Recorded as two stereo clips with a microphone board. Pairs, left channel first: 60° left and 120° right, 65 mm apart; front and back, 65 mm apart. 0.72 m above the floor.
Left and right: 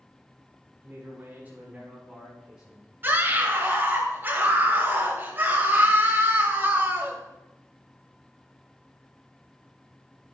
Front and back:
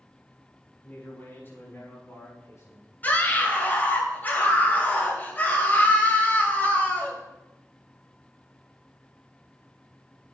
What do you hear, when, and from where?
0.8 s a man speaking: 65° right, 5 m; by 2.9 s 40° right, 7 m
3.0 s a scream: 65° right, 3 m